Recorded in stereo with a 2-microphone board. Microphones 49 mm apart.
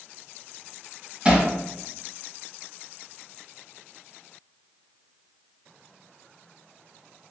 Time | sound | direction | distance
1.2 | hammering | 25° right (ahead or behind) | 1.6 m